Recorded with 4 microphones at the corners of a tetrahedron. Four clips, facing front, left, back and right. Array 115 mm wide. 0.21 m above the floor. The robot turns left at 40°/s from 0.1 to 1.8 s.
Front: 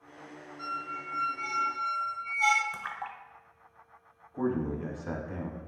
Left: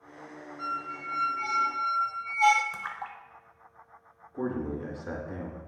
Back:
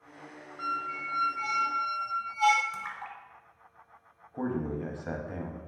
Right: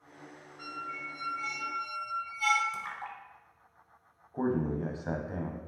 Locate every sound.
0.6 s a squeak: 175° left, 0.5 m; by 2.6 s 125° left, 0.5 m
2.7 s a splash: 55° left, 0.7 m
4.3 s a man speaking: 110° right, 1.0 m